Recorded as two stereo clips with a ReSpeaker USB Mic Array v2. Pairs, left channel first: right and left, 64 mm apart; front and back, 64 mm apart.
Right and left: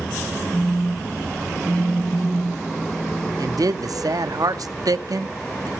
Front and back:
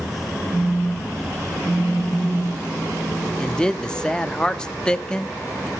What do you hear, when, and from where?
0.5 s a phone buzzing: 160° left, 4 m
3.4 s a man speaking: 80° left, 0.5 m